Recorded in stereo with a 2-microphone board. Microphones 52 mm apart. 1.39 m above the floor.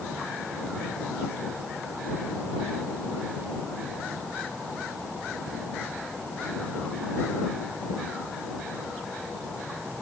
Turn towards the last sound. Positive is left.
No sound to turn to.